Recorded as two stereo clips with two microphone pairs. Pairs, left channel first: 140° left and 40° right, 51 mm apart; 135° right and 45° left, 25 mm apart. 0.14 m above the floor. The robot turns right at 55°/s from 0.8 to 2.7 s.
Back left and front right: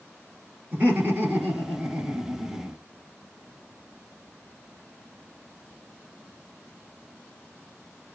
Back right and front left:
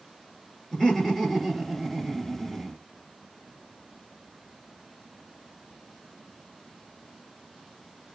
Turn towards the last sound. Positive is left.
turn(degrees=15)